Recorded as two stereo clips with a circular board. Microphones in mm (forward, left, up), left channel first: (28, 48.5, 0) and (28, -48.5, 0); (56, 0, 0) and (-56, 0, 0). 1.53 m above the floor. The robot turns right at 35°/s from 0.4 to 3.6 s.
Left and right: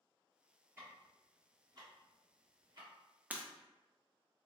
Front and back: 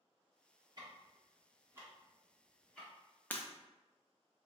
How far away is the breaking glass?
About 0.6 m.